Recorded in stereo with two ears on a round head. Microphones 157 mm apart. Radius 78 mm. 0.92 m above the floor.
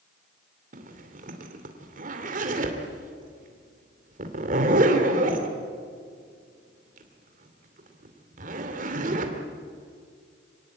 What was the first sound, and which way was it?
A zipper, 45° right (ahead or behind).